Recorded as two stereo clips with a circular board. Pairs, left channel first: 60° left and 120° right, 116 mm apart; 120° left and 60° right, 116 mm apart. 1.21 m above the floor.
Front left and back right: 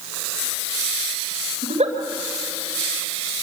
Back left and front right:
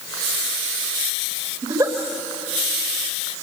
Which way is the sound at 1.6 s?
115° right.